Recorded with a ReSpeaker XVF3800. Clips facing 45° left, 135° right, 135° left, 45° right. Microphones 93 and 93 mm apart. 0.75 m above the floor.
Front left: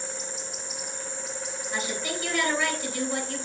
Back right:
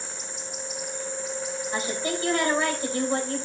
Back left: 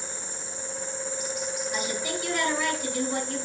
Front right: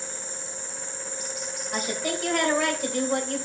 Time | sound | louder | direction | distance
1.7 | a woman speaking | back right 2 dB, front right 5 dB | 80° right | 3 m